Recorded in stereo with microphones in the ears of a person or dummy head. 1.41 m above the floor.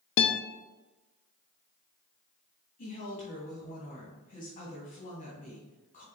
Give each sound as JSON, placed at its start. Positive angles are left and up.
{"t": 0.2, "sound": "a guitar", "side_deg": 60, "distance_m": 0.7}
{"t": 2.8, "sound": "a woman speaking", "side_deg": 40, "distance_m": 2.5}